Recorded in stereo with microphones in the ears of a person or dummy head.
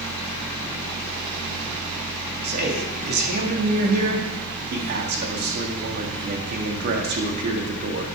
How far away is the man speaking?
About 1.8 m.